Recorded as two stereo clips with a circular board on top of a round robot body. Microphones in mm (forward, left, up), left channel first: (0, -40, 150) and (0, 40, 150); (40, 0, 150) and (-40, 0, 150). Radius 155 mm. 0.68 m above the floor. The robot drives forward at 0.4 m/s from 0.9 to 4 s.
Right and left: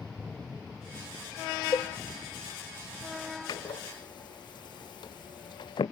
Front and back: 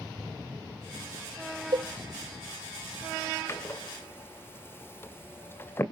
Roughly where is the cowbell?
Behind right.